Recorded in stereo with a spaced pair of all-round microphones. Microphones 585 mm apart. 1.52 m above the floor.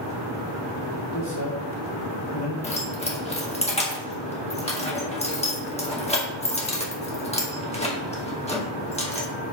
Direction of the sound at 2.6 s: 10° left (ahead or behind).